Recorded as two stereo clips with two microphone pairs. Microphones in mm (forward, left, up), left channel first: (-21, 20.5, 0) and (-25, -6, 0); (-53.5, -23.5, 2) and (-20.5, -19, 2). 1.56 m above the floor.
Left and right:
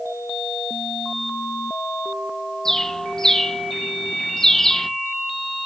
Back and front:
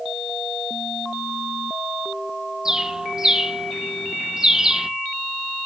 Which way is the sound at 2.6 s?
45° left.